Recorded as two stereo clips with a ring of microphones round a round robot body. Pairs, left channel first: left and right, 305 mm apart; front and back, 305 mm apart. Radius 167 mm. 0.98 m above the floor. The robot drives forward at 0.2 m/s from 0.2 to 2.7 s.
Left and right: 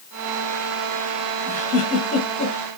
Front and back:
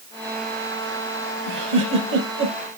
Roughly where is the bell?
I don't hear a bell.